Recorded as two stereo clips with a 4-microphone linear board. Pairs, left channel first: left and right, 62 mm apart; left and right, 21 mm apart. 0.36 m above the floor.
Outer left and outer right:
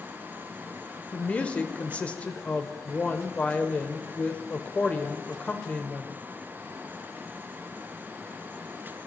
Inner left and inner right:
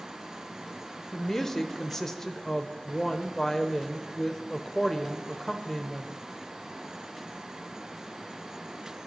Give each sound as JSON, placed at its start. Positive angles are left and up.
{"t": 1.1, "sound": "a woman speaking", "side_deg": 20, "distance_m": 0.9}